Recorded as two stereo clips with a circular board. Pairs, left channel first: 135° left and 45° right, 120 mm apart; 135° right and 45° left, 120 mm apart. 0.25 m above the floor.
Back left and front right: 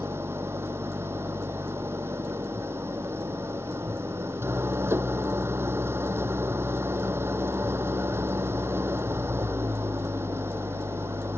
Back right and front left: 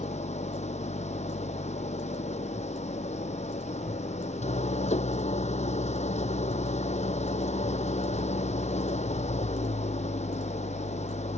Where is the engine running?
115° right.